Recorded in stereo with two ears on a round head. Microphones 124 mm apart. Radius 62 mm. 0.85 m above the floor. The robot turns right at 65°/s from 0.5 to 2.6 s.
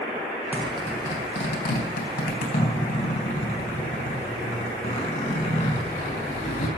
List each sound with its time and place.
0.5 s a zipper: 10° right (ahead or behind), 4 m; by 6.7 s 55° left (ahead or behind), 4 m